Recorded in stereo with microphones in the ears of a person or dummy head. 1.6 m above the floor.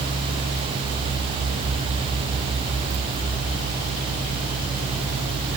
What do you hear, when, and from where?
Only background noise.